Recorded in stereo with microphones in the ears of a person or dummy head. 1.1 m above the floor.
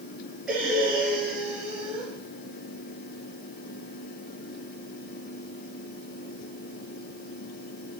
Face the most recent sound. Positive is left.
turn(degrees=5)  # may be behind; listen again after turning